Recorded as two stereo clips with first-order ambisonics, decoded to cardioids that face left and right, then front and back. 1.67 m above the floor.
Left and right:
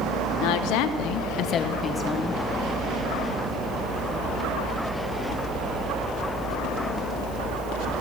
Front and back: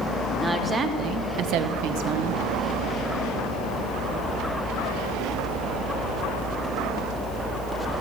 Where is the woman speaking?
95° left, 1.0 m; by 2.4 s 175° right, 1.1 m.